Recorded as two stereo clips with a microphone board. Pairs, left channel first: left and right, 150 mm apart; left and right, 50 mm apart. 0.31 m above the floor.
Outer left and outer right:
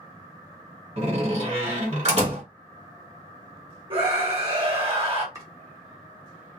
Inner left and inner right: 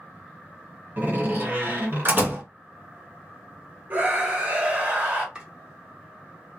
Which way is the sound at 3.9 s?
40° right (ahead or behind).